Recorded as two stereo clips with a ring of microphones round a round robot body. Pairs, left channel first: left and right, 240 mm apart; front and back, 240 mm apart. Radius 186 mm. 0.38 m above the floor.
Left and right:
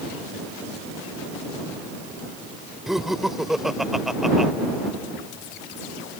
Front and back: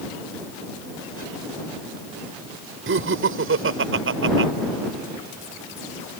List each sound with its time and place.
2.9 s laughter: straight behind